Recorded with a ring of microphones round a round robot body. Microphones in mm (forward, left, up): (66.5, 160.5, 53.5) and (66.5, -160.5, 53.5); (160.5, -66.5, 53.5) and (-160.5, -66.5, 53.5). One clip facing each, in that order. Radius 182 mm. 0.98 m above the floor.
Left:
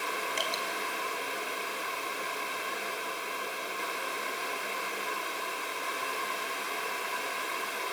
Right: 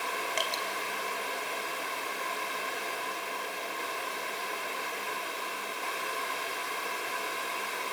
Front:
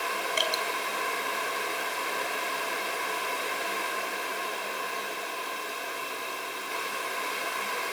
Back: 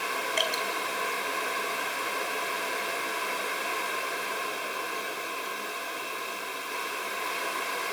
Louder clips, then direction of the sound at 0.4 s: Even, back 1 dB; 80° right.